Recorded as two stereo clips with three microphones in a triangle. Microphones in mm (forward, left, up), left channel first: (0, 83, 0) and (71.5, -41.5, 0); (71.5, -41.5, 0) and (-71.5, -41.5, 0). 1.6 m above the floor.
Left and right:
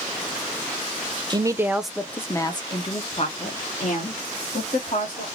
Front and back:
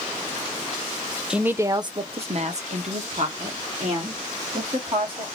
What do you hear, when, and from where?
1.3 s a woman speaking: 95° right, 0.6 m; by 5.2 s 145° left, 2 m